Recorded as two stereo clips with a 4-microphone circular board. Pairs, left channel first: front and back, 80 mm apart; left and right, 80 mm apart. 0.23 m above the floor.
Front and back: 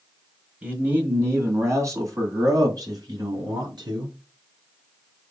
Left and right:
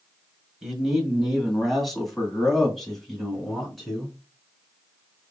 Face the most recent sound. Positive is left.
turn(degrees=180)